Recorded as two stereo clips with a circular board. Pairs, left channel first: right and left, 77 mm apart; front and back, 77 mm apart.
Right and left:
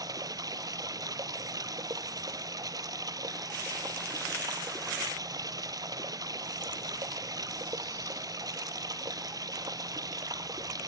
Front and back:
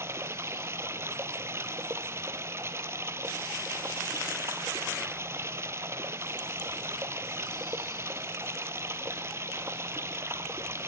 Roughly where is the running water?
Behind left.